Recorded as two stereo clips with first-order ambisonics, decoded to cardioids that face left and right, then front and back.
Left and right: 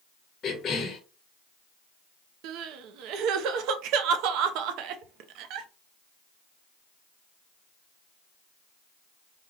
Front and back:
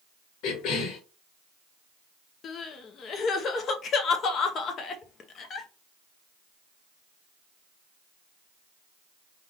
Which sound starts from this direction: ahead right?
Crying, at 2.4 s.